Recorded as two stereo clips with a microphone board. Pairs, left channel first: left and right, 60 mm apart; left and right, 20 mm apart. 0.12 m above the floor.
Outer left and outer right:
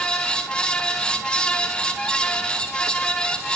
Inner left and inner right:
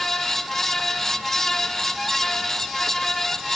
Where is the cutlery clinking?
I don't hear cutlery clinking.